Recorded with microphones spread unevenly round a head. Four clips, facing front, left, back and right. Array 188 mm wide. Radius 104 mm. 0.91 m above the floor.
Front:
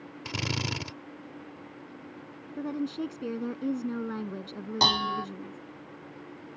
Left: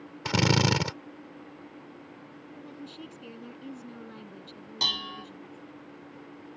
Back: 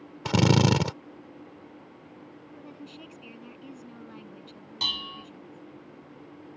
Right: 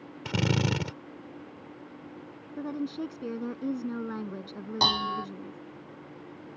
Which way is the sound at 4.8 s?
25° right.